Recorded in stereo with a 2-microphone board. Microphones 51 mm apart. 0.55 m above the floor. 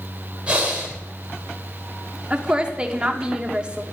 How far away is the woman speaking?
About 1.2 m.